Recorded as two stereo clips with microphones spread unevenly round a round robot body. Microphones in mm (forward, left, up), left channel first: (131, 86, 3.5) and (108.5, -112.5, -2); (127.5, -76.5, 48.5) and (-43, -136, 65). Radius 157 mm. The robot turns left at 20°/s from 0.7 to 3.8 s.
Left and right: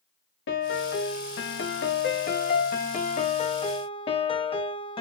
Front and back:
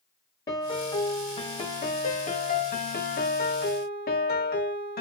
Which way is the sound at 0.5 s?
85° left.